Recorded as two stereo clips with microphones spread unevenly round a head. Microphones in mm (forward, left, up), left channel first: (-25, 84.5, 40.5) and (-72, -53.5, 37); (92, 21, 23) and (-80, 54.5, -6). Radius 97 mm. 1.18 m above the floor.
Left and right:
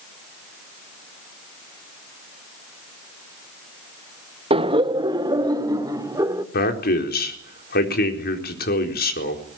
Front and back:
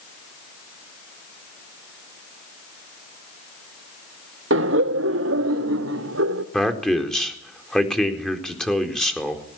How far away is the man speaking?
About 4 m.